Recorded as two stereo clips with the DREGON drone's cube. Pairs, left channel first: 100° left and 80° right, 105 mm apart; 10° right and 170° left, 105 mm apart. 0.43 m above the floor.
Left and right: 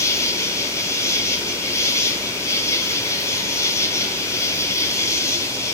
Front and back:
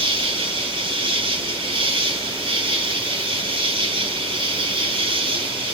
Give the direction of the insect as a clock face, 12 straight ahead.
7 o'clock.